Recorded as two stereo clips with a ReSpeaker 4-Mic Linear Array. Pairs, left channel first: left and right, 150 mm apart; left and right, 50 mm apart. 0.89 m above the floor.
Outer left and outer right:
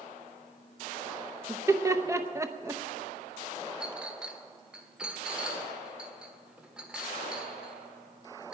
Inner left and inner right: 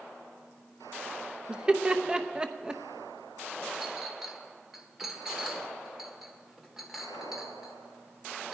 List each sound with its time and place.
1.5 s laughter: 20° right (ahead or behind), 0.7 m
3.8 s a clink: 5° right (ahead or behind), 1.3 m